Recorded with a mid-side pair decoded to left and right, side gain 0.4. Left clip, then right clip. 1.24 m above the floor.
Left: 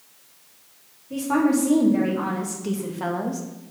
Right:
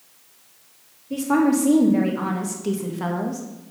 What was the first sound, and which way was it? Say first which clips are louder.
A woman speaking: right 2 dB; 30° right.